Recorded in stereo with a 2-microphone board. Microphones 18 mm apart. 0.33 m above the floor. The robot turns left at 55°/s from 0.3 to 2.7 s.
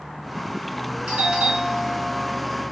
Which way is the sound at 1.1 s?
95° right.